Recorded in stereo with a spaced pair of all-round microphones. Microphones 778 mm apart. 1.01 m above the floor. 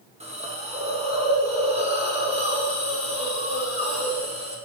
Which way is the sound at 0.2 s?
10° right (ahead or behind).